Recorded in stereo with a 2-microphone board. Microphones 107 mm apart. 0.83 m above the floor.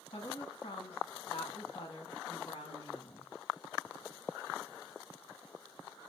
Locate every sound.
0.1 s a woman speaking: 50° left (ahead or behind), 1.1 m